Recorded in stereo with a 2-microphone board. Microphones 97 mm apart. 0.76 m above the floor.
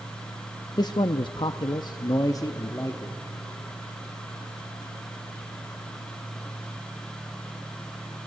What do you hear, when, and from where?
0.8 s a man speaking: 45° left (ahead or behind), 0.7 m; by 3.2 s 25° left (ahead or behind), 1.3 m